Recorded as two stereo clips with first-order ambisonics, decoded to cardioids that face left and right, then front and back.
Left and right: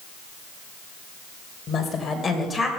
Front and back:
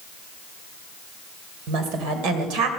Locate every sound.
1.7 s a woman speaking: 160° left, 3 m; by 2.7 s straight behind, 2.5 m